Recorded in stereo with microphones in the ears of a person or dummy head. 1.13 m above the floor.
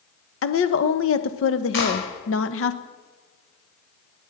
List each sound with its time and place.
0.4 s a woman speaking: 65° left (ahead or behind), 1.2 m
1.7 s a clap: 65° left (ahead or behind), 5 m